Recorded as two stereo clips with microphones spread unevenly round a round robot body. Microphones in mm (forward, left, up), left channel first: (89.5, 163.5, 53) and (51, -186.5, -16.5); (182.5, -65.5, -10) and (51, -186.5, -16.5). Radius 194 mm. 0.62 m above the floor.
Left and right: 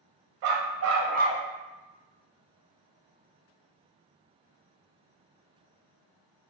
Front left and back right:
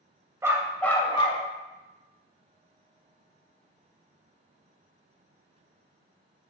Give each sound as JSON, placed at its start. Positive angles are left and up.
{"t": 0.4, "sound": "a dog barking", "azimuth_deg": -60, "distance_m": 0.9}